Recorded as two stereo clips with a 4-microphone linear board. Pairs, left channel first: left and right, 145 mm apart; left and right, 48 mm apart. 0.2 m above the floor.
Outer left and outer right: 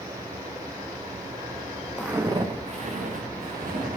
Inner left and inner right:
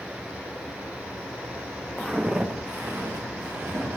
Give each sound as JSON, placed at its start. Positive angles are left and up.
{"t": 2.0, "sound": "footsteps", "side_deg": -5, "distance_m": 1.2}